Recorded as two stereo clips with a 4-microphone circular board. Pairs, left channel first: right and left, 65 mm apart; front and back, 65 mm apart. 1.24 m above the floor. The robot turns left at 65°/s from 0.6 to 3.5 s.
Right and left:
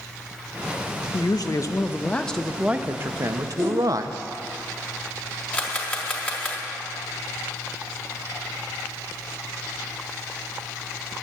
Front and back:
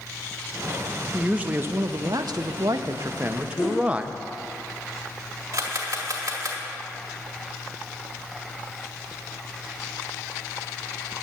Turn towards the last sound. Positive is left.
turn(degrees=-155)